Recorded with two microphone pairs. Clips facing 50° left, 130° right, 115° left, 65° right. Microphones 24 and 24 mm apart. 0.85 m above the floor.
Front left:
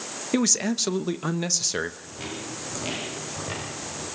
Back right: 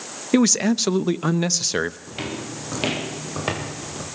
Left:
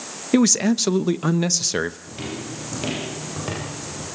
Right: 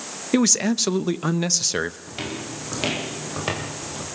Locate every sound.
0.3 s a man speaking: 165° right, 0.7 m
2.1 s footsteps: 140° right, 9 m; by 4.0 s 125° right, 9.5 m